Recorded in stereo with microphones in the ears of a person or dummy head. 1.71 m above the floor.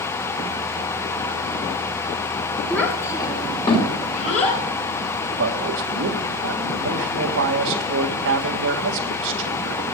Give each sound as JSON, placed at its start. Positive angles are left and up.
{"t": 2.7, "sound": "a child speaking", "side_deg": 5, "distance_m": 1.9}
{"t": 5.4, "sound": "a man speaking", "side_deg": -70, "distance_m": 1.7}